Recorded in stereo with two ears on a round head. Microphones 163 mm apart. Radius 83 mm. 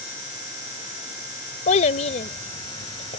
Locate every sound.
1.7 s a child speaking: 40° left (ahead or behind)